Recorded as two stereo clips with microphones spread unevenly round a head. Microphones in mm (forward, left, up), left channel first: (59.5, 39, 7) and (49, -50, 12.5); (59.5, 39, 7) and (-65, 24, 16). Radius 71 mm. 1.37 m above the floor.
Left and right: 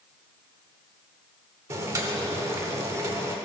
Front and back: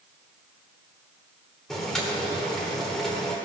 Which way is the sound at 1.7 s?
85° right.